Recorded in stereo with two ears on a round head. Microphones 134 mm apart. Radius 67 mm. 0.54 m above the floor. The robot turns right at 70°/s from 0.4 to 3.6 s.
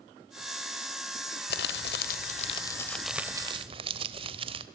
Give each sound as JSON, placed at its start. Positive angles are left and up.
{"t": 1.5, "sound": "crumpling", "azimuth_deg": 70, "distance_m": 1.3}